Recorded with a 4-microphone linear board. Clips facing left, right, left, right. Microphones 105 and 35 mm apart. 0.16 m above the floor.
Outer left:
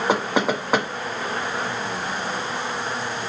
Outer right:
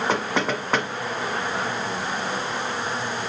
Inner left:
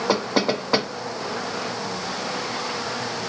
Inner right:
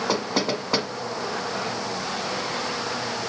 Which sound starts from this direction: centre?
Knocking, at 0.1 s.